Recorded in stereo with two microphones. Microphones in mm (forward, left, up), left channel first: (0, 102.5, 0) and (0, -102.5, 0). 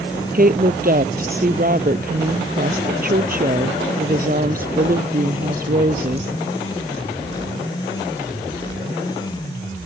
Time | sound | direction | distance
0.3 | a woman speaking | 45° right (ahead or behind) | ?